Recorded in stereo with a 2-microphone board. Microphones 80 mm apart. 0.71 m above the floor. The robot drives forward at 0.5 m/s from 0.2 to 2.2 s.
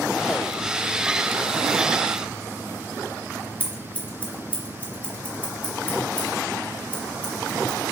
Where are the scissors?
20° left (ahead or behind), 1.2 m.